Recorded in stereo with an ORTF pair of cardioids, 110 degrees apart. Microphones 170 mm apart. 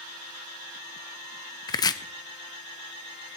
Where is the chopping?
25° left, 0.7 m.